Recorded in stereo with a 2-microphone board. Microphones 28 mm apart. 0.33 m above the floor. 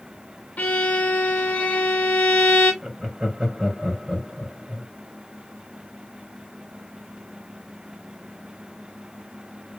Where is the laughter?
35° right (ahead or behind), 2 m.